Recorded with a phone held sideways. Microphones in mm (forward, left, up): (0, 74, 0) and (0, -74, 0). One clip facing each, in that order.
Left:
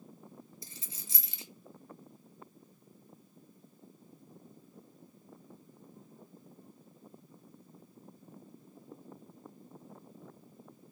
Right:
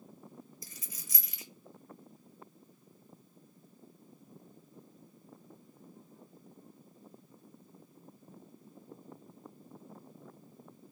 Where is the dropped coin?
30° left (ahead or behind), 0.5 m.